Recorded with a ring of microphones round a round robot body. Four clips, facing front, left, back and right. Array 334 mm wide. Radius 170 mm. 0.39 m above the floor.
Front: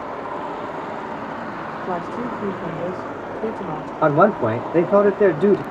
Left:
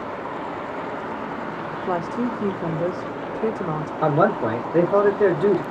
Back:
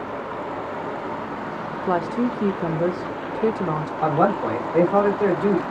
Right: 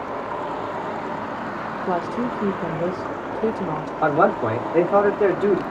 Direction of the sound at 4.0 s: 10° left.